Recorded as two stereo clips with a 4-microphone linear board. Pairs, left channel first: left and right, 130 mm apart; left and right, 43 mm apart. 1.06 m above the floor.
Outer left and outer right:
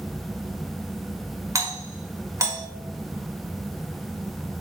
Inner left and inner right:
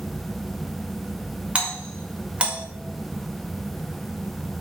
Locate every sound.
1.6 s a doorbell: 25° right (ahead or behind), 1.6 m